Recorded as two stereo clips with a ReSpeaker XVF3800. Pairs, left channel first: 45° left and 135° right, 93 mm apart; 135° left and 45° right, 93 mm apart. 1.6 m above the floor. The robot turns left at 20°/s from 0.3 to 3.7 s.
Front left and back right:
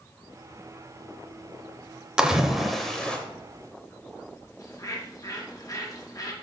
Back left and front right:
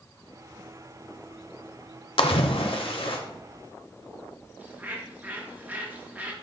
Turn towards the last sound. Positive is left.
turn(degrees=20)